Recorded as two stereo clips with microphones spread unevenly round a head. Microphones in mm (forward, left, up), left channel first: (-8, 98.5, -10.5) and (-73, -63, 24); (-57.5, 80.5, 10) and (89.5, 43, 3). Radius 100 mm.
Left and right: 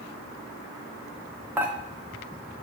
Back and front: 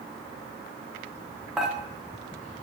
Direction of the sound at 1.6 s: 105° right.